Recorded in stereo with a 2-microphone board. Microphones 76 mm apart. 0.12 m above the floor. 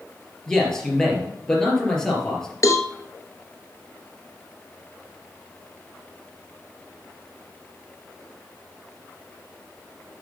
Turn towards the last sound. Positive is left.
turn(degrees=45)  # may be behind; listen again after turning